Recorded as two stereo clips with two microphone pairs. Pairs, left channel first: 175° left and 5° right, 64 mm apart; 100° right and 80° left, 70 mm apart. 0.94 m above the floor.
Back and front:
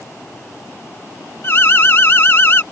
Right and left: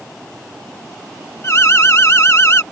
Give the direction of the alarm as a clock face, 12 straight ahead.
5 o'clock.